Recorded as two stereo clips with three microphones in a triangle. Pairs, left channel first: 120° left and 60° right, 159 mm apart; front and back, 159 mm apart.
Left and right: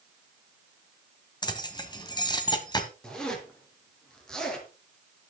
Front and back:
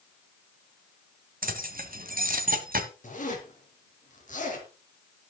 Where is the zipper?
35° left, 2.5 m.